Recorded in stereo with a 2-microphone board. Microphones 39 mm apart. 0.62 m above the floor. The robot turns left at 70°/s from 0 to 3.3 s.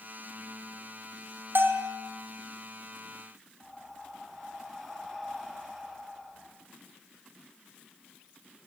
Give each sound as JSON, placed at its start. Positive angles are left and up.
{"t": 1.6, "sound": "a bell", "side_deg": -70, "distance_m": 3.5}
{"t": 3.6, "sound": "breathing", "side_deg": -10, "distance_m": 5.0}